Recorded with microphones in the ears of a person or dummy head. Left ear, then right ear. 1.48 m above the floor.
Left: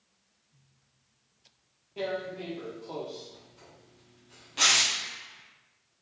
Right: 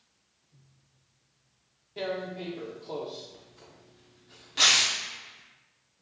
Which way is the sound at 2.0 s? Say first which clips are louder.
Even; 15° right (ahead or behind).